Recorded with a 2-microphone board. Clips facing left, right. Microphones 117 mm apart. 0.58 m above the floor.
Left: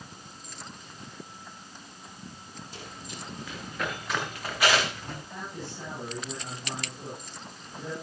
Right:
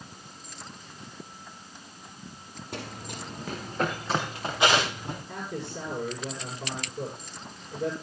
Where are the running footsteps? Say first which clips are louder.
Right 7 dB; 60° right (ahead or behind), 3.5 m; by 5.2 s 15° right (ahead or behind), 5 m.